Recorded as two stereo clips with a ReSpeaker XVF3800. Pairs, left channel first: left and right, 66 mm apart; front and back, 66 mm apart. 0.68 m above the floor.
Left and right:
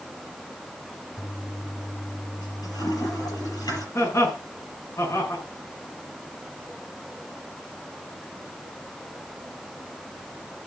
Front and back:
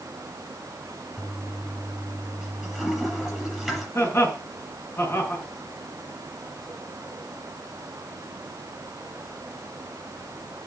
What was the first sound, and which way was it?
A toilet flushing, 85° left.